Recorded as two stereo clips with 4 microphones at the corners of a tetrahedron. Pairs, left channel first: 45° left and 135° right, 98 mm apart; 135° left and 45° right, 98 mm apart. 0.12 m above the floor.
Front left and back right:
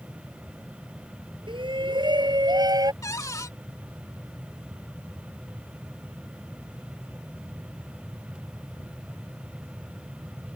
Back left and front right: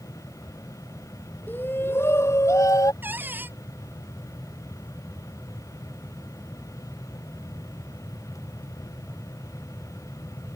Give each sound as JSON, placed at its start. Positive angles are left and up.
{"t": 1.5, "sound": "a shout", "azimuth_deg": -155}
{"t": 3.0, "sound": "a cupboard door", "azimuth_deg": 10}